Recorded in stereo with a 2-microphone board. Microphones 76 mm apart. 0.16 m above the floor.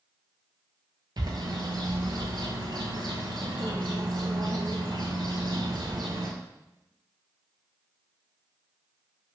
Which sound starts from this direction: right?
A bird, at 1.2 s.